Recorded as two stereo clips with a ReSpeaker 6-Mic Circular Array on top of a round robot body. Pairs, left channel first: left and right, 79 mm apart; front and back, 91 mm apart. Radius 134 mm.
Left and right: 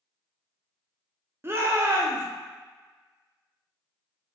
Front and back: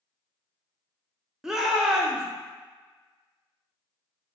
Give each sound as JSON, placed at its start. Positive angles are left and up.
{"t": 1.4, "sound": "a shout", "azimuth_deg": -100, "distance_m": 1.0}